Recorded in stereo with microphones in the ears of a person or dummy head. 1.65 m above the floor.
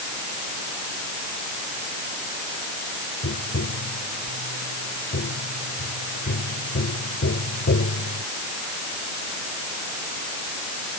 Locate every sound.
3.2 s tapping: 60° left (ahead or behind)